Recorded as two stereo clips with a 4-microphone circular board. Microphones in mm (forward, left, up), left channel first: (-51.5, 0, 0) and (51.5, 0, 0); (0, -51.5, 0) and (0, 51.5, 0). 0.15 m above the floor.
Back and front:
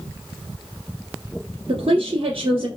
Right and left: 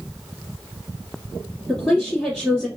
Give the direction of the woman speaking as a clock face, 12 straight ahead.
12 o'clock.